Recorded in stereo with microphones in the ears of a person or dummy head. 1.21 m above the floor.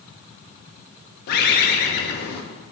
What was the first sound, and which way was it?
A bird, 55° left (ahead or behind).